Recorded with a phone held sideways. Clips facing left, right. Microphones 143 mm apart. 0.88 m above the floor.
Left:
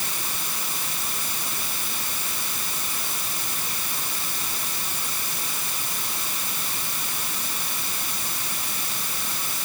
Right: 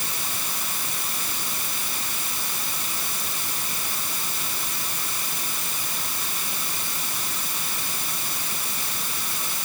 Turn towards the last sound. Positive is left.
No sound to turn to.